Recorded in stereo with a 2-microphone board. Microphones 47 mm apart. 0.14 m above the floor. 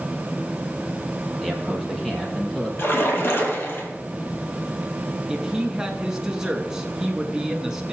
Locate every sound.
1.4 s a man speaking: centre (ahead or behind), 3 m; by 2.7 s 10° left (ahead or behind), 4 m
2.8 s a splash: 60° left (ahead or behind), 2.5 m
5.3 s a woman speaking: 10° right (ahead or behind), 1.2 m